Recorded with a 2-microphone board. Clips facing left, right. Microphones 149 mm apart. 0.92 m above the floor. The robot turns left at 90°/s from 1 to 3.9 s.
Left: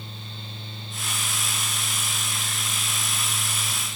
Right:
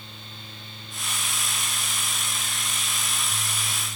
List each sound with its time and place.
Only background noise.